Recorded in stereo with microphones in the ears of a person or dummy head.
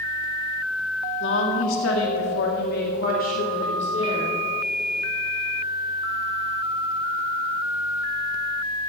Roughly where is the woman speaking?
Left.